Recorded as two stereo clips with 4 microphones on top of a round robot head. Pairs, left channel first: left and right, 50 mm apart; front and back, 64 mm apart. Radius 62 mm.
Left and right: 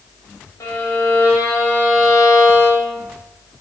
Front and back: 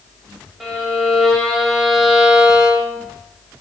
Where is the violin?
90° left, 1.7 m.